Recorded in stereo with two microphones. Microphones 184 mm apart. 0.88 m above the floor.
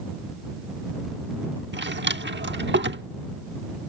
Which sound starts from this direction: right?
A drawer, at 1.7 s.